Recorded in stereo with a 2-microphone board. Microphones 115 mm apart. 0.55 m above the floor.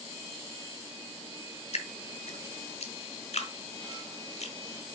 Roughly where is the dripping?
Left.